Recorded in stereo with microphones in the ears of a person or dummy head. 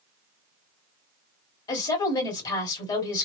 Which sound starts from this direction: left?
A woman speaking, at 1.7 s.